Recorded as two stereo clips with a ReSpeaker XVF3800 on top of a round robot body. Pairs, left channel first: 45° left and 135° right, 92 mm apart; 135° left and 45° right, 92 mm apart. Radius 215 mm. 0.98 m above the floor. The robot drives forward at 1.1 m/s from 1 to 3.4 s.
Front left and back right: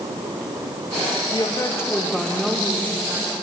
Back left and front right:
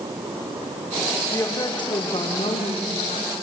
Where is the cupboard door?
No cupboard door in this recording.